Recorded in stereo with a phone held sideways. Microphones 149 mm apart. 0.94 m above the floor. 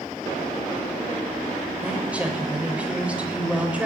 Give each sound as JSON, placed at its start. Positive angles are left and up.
{"t": 1.8, "sound": "a woman speaking", "side_deg": -10, "distance_m": 3.5}